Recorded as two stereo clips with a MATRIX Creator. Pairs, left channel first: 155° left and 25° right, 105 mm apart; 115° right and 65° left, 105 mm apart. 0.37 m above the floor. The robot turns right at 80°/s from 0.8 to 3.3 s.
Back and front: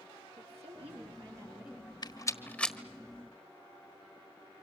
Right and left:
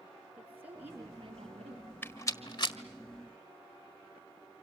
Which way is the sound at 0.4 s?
5° right.